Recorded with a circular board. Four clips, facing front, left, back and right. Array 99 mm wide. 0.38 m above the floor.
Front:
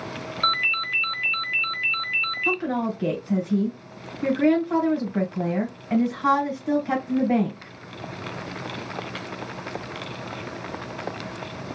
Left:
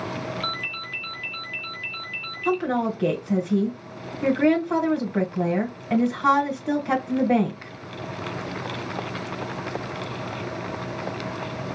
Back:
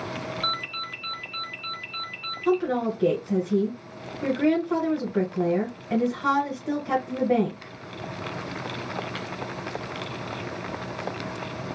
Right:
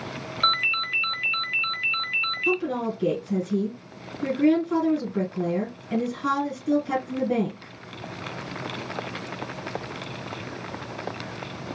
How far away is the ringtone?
About 0.8 m.